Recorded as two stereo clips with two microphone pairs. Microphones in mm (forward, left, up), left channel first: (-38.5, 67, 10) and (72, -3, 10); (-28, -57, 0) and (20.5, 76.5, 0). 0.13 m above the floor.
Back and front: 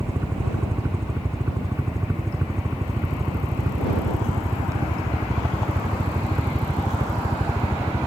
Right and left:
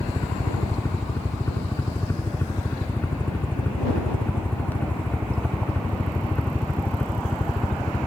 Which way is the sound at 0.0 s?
75° right.